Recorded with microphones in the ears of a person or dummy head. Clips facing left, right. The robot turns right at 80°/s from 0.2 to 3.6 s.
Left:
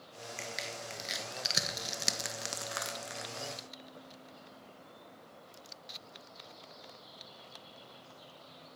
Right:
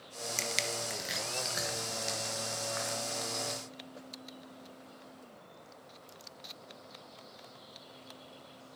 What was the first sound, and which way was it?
Crushing, 60° right (ahead or behind).